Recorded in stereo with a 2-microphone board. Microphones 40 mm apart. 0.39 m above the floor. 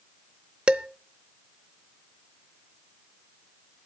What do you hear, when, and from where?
0.7 s dishes clattering: 25° right (ahead or behind), 0.6 m